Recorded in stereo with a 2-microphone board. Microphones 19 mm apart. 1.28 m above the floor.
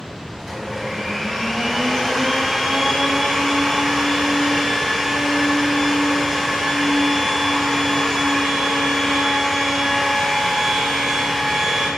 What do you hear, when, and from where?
0.4 s a blender: 10° right (ahead or behind), 1.4 m